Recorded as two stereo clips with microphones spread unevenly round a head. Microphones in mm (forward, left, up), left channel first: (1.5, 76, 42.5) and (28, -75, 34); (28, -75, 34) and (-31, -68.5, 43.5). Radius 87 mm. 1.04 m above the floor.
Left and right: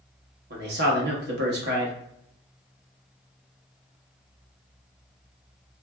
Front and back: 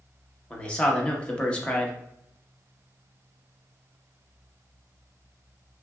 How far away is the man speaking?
About 1.1 m.